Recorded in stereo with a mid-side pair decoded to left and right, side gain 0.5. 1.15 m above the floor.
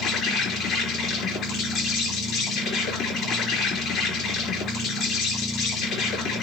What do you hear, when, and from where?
0.0 s an insect: 65° left, 4.5 m